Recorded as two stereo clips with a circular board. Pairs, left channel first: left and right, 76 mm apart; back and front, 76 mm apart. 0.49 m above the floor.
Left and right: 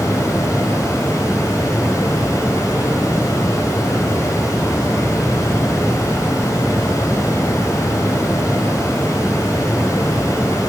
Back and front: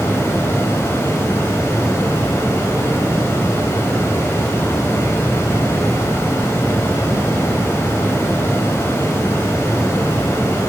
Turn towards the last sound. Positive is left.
turn(degrees=130)